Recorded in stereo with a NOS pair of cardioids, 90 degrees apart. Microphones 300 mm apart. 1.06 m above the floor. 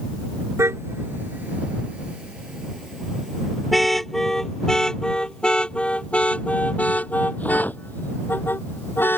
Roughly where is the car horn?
Ahead.